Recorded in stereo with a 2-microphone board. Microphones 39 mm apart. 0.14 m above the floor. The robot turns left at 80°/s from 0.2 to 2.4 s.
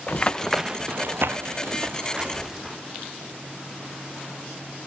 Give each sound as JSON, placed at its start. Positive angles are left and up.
{"t": 0.1, "sound": "running footsteps", "side_deg": 35, "distance_m": 0.7}